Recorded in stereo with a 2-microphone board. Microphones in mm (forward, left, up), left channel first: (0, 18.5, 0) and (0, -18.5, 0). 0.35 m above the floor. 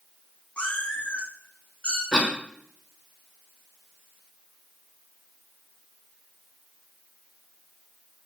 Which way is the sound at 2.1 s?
25° left (ahead or behind).